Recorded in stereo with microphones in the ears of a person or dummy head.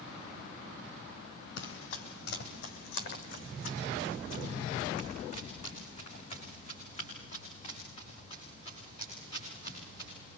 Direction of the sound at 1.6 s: 60° left (ahead or behind).